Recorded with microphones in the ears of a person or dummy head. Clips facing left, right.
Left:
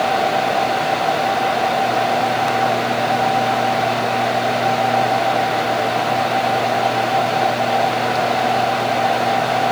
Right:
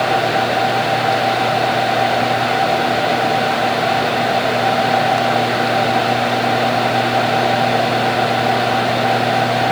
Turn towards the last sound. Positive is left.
No sound to turn to.